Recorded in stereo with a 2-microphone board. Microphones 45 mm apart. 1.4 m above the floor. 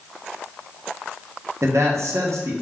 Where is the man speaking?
80° right, 0.6 m.